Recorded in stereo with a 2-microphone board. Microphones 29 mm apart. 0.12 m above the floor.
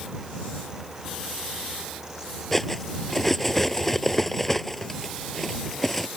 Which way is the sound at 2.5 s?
10° left (ahead or behind).